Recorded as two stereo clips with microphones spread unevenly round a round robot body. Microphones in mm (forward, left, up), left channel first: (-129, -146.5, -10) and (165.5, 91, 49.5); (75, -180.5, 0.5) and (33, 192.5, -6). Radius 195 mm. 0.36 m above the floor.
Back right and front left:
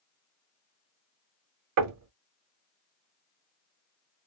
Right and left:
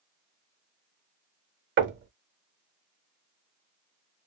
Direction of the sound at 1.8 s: 70° left.